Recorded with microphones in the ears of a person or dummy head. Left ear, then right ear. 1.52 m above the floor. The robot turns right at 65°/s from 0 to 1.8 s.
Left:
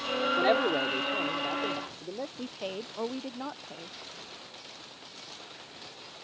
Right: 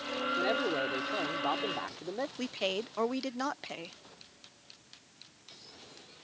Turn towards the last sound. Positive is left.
turn(degrees=-60)  # may be behind; listen again after turning